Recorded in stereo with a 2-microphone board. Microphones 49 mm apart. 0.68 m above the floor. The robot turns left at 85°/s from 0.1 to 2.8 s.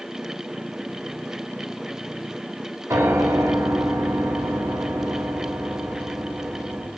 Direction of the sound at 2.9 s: 85° right.